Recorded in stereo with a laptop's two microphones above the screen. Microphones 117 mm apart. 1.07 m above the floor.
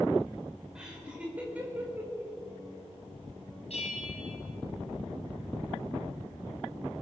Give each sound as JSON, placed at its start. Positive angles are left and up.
{"t": 0.8, "sound": "laughter", "side_deg": -5, "distance_m": 5.5}
{"t": 3.7, "sound": "a bell", "side_deg": 60, "distance_m": 6.0}